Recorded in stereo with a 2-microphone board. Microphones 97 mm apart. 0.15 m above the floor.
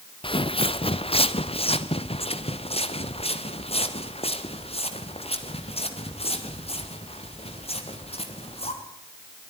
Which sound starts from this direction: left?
Footsteps, at 0.2 s.